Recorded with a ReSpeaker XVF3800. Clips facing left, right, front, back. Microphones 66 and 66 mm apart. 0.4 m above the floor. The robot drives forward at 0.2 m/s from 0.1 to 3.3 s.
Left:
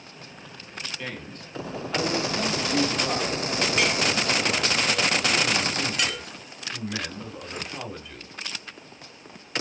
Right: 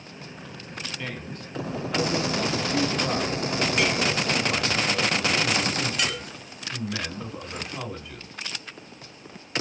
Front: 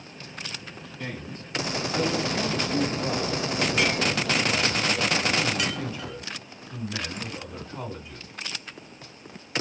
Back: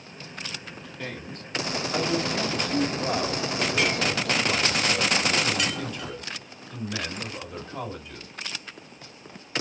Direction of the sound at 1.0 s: Straight behind.